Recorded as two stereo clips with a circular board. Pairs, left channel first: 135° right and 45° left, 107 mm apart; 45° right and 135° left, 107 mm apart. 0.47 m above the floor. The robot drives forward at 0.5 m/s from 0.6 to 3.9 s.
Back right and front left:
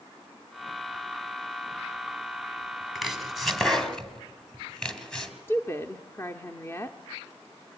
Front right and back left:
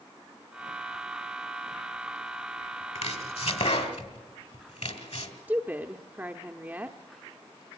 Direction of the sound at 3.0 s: 40° right.